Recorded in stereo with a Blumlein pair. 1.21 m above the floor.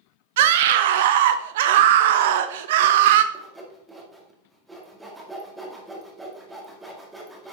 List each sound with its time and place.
0.4 s a scream: 55° right, 0.5 m
3.3 s sawing: 5° right, 1.9 m